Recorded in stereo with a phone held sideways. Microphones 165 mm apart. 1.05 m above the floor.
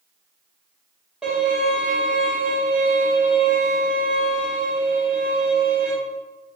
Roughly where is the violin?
Centre.